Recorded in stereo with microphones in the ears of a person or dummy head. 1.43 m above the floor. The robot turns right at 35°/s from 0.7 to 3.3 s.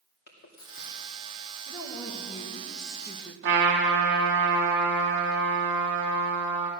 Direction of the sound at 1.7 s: 115° left.